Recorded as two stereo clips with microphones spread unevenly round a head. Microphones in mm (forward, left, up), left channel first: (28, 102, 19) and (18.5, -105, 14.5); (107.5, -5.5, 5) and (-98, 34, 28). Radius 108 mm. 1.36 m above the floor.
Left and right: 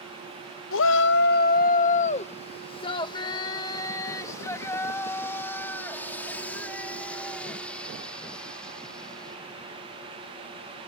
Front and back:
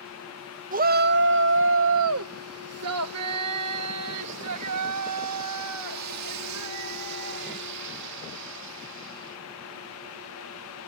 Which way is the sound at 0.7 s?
115° left.